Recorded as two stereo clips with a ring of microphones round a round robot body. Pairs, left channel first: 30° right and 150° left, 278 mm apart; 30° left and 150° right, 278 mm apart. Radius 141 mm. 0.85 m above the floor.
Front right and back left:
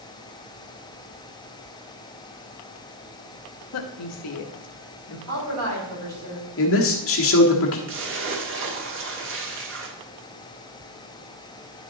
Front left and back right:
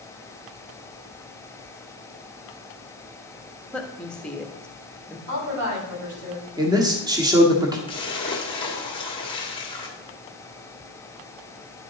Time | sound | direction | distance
3.7 | a woman speaking | 55° right | 1.1 m
5.3 | a woman speaking | 175° right | 5 m
6.6 | a man speaking | 75° right | 1.5 m
7.9 | a splash | 105° left | 1.6 m